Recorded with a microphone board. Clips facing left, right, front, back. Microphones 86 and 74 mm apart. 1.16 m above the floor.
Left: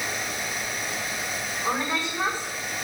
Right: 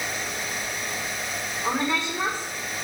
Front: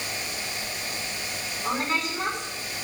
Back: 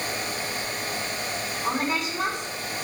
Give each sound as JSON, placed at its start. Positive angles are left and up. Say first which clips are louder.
{"t": 1.6, "sound": "a woman speaking", "louder": "right 2 dB, even", "azimuth_deg": -100, "distance_m": 4.0}